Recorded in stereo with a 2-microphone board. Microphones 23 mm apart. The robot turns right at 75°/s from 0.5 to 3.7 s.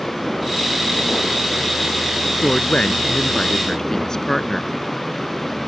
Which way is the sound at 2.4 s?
60° left.